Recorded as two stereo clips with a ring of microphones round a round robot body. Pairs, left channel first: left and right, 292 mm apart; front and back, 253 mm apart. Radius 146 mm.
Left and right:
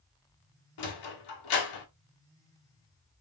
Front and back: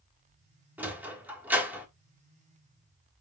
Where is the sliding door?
95° left, 1.4 m.